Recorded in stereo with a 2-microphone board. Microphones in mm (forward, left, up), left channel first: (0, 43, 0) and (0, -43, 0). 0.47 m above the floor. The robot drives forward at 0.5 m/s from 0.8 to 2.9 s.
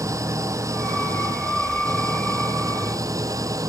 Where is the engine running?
35° right (ahead or behind); by 3.7 s 40° right (ahead or behind).